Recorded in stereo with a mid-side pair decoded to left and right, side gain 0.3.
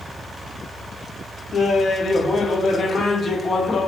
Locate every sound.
1.5 s laughter: 65° left, 0.9 m